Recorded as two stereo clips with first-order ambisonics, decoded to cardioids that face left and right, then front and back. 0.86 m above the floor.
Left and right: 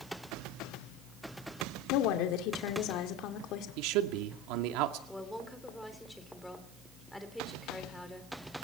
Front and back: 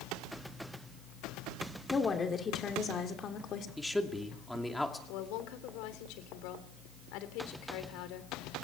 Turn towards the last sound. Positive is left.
turn(degrees=5)